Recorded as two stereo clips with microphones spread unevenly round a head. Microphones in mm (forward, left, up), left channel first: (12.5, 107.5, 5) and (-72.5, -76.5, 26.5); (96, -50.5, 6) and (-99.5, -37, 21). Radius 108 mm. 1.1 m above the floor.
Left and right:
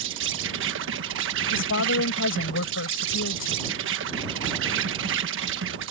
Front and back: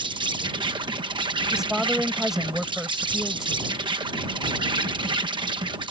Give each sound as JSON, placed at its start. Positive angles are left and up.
{"t": 0.0, "sound": "an insect", "azimuth_deg": -120}
{"t": 1.5, "sound": "a woman speaking", "azimuth_deg": 90}